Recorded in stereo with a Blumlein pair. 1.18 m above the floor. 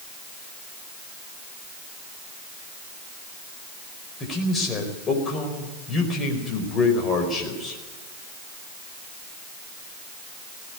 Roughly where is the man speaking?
Ahead.